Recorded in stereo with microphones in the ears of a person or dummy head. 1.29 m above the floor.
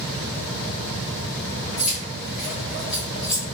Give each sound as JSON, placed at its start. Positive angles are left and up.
{"t": 1.8, "sound": "keys jangling", "side_deg": -5, "distance_m": 1.9}